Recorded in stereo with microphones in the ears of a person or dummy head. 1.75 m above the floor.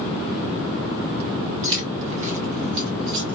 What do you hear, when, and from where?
1.6 s keys jangling: 15° right (ahead or behind), 1.0 m; by 3.4 s 60° right (ahead or behind), 1.4 m